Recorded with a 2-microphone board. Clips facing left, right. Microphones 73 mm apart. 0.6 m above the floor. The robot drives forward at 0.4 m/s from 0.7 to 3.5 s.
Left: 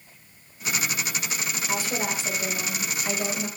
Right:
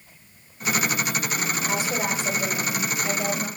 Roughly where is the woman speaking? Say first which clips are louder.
Even; centre.